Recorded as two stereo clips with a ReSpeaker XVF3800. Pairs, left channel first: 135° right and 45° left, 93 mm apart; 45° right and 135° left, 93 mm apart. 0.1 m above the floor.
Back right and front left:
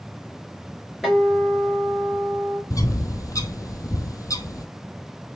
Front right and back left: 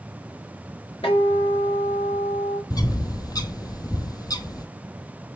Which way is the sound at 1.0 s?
45° right.